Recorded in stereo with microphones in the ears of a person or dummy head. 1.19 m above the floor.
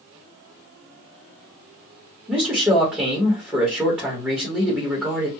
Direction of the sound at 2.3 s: 5° right (ahead or behind).